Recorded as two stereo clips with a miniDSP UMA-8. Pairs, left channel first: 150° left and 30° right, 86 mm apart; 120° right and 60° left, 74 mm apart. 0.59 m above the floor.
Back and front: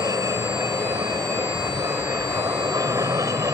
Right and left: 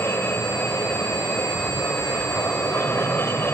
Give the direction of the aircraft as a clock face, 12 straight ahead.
2 o'clock.